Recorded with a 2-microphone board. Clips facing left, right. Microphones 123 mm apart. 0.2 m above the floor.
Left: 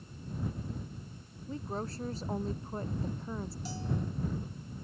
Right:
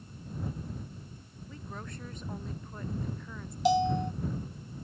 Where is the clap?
No clap in this recording.